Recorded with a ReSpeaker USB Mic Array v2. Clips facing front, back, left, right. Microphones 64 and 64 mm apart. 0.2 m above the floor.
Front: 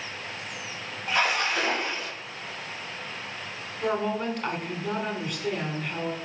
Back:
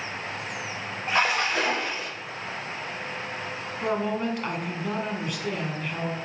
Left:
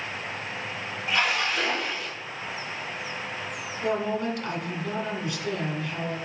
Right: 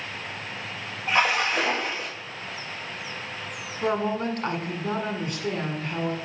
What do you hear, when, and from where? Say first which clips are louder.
1.1 s a splash: back 1 dB, right 3 dB; 140° right, 3 m
3.8 s a woman speaking: even, right 2 dB; 95° right, 1.5 m